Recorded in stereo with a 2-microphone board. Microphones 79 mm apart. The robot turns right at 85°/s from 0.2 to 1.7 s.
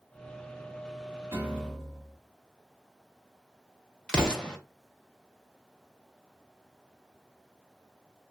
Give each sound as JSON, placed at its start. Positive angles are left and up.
{"t": 1.3, "sound": "a piano", "azimuth_deg": -35, "distance_m": 1.6}
{"t": 4.1, "sound": "an explosion", "side_deg": 10, "distance_m": 0.7}